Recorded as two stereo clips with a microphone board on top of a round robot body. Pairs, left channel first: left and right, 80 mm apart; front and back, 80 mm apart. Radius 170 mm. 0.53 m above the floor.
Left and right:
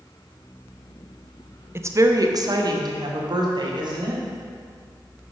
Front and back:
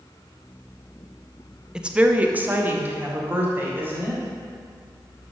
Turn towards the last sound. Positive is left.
turn(degrees=-120)